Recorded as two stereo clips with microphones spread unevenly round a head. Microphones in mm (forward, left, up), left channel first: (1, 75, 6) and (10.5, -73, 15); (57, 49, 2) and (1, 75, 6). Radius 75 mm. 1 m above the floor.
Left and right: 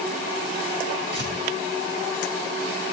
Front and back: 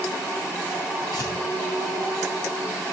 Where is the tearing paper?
80° right, 6 m.